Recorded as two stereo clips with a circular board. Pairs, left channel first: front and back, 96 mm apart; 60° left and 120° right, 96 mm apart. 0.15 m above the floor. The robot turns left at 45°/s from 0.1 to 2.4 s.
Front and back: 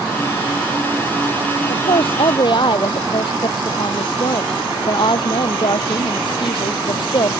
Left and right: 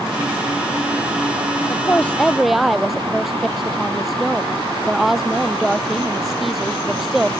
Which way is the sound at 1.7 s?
Straight ahead.